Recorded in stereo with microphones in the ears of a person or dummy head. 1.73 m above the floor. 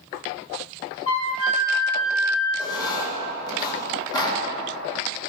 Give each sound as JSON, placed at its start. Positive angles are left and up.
{"t": 1.1, "sound": "a flute", "side_deg": 30, "distance_m": 2.0}
{"t": 2.6, "sound": "writing", "side_deg": 20, "distance_m": 0.9}